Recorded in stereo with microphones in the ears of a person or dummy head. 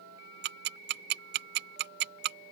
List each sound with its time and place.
0.4 s ticking: 60° right (ahead or behind)